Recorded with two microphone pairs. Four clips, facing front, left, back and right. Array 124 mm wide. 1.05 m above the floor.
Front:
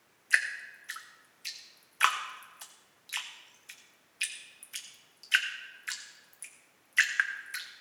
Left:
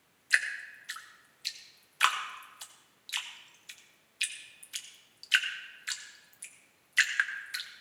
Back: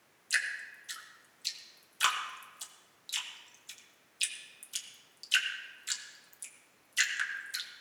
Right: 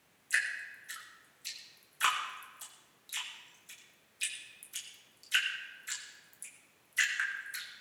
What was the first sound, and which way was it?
Dripping, 35° left.